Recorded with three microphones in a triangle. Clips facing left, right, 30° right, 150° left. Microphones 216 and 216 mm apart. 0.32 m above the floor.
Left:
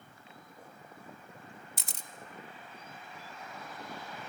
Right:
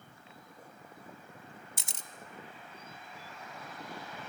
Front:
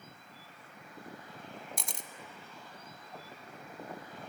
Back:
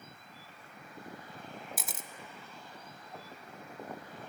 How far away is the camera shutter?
About 0.9 m.